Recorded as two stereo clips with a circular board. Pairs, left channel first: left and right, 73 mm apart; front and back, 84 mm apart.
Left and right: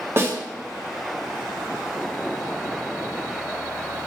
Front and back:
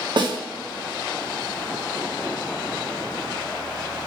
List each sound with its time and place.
0.2 s a snare drum: 145° right, 1.0 m